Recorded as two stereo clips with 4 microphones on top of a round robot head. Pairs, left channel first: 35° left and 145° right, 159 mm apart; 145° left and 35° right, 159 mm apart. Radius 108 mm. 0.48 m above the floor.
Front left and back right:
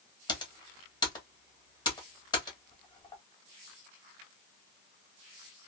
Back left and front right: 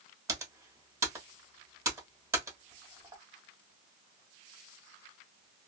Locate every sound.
0.3 s typing on a keyboard: 15° left, 1.3 m